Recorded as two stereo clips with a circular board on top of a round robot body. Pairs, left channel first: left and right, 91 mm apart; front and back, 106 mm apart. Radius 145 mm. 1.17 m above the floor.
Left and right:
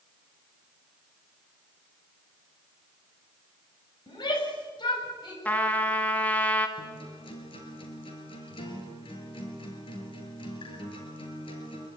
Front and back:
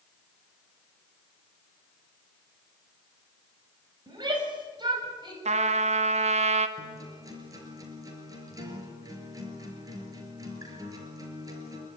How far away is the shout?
About 7 m.